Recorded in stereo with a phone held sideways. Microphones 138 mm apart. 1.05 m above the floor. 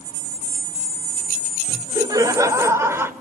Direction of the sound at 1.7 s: 30° right (ahead or behind).